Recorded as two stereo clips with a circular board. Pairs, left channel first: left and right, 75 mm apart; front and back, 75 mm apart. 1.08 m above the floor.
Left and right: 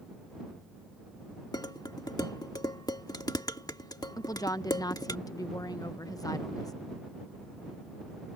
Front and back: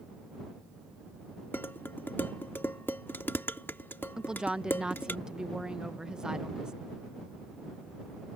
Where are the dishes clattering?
60° left.